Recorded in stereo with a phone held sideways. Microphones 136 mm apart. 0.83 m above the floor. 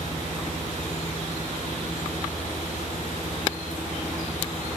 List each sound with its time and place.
0.0 s a fan: 65° left (ahead or behind), 4.5 m